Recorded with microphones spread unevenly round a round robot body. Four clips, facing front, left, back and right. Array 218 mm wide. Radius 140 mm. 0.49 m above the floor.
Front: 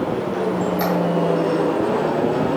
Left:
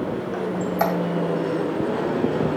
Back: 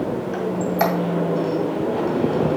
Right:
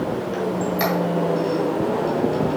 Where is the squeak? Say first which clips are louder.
Left 1 dB, back 1 dB; 150° left, 2 m.